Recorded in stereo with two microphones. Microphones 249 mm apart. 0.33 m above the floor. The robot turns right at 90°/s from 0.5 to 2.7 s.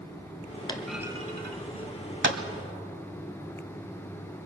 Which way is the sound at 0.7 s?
15° left (ahead or behind).